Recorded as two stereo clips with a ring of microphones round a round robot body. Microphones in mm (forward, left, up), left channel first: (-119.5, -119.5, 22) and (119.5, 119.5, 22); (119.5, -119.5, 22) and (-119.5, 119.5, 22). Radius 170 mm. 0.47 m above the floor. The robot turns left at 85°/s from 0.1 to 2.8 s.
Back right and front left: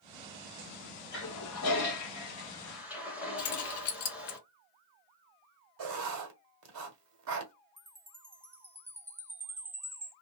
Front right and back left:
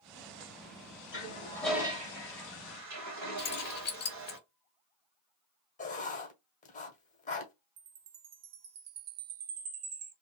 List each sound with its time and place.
1.1 s a toilet flushing: 90° right, 1.9 m; by 4.4 s 130° left, 1.9 m
3.4 s keys jangling: 100° right, 1.1 m
5.8 s writing: 25° left, 1.3 m
7.8 s a chime: 125° left, 0.7 m